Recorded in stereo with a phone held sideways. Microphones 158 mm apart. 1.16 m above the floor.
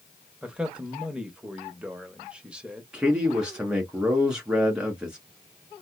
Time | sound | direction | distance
0.4 | a man speaking | 5° right (ahead or behind) | 1.0 m
2.9 | a man speaking | 5° right (ahead or behind) | 1.8 m